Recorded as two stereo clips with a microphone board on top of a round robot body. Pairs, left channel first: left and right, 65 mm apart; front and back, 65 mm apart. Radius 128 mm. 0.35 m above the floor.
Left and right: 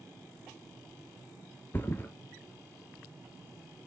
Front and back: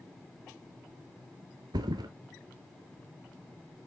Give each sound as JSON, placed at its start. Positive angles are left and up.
{"t": 1.7, "sound": "a thud", "azimuth_deg": 155, "distance_m": 0.7}